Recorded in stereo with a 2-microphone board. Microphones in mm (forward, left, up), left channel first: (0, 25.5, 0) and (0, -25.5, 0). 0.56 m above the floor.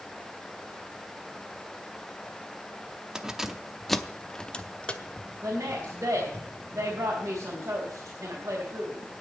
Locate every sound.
3.1 s keys jangling: 15° right (ahead or behind), 0.7 m; by 6.4 s 25° left (ahead or behind), 1.5 m
5.4 s a woman speaking: 65° right (ahead or behind), 3.5 m